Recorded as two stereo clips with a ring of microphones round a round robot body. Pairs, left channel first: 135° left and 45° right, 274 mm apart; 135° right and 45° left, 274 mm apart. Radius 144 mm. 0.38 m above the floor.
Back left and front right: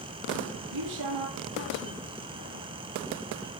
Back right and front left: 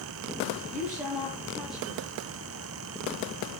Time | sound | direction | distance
0.7 | a woman speaking | 45° right | 9.5 m